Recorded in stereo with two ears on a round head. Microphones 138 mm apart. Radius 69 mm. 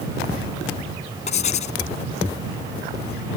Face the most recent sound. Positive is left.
turn(degrees=50)  # may be behind; listen again after turning